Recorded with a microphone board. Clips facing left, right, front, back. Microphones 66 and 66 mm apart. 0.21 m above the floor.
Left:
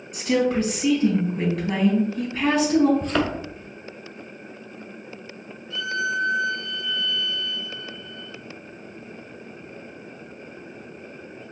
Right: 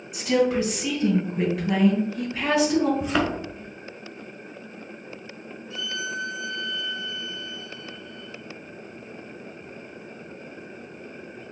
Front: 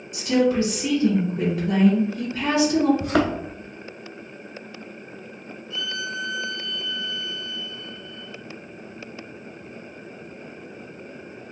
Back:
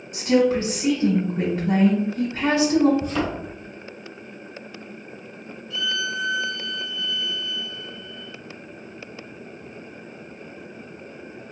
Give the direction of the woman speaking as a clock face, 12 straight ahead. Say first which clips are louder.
Even, back 1 dB; 6 o'clock.